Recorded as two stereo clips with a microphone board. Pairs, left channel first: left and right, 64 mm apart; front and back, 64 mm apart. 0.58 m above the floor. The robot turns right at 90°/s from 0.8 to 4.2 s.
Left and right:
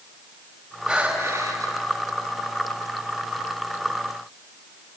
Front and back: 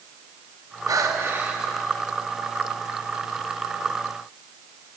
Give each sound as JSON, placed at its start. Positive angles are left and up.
{"t": 0.9, "sound": "breathing", "azimuth_deg": -165, "distance_m": 3.5}